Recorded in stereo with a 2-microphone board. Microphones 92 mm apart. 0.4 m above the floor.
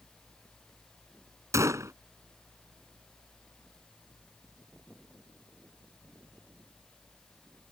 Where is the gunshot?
35° right (ahead or behind).